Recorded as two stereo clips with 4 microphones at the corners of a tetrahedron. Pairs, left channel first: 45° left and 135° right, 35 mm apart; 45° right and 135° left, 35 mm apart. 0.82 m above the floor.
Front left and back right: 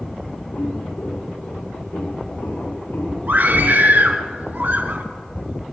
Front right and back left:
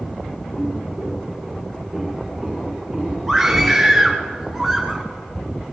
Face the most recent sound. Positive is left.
turn(degrees=-130)